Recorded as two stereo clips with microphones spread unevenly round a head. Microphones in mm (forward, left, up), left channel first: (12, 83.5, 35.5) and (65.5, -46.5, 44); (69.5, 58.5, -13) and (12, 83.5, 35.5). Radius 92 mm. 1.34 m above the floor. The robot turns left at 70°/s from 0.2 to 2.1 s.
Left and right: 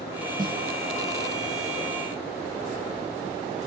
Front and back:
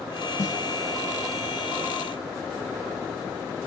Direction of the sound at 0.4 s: 5° right.